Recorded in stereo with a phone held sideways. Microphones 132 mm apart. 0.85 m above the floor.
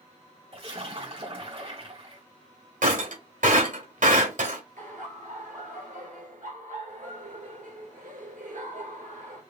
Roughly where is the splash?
Right.